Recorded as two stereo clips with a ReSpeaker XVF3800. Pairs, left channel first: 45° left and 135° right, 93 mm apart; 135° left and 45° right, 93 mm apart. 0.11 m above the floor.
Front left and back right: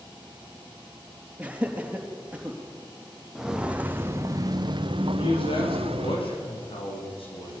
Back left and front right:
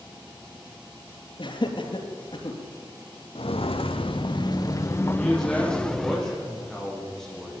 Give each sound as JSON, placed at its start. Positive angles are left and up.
{"t": 1.4, "sound": "laughter", "azimuth_deg": 150, "distance_m": 3.5}
{"t": 3.4, "sound": "footsteps", "azimuth_deg": 140, "distance_m": 1.9}
{"t": 5.2, "sound": "a man speaking", "azimuth_deg": 50, "distance_m": 6.5}